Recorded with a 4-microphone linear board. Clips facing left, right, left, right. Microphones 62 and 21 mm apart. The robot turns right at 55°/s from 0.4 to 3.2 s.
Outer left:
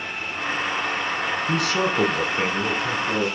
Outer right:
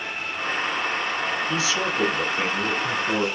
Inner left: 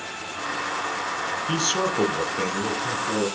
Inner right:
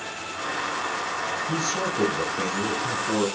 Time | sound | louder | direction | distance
1.5 | a man speaking | outer left 2 dB, inner left 5 dB | 115° left | 5 m